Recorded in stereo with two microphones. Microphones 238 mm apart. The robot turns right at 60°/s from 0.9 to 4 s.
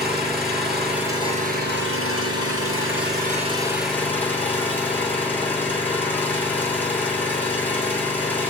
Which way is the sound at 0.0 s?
Straight behind.